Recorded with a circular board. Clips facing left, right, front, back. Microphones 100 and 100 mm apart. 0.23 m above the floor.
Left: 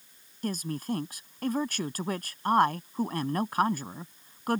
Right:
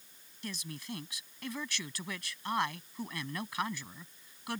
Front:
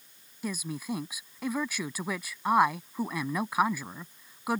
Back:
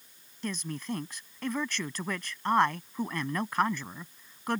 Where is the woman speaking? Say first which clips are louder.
Left 11 dB, front 1 dB; 80° left.